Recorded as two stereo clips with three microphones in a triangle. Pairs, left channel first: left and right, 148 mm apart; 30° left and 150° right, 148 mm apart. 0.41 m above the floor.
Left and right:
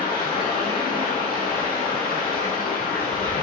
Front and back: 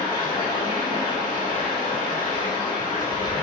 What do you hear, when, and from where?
0.0 s running water: 90° left, 4 m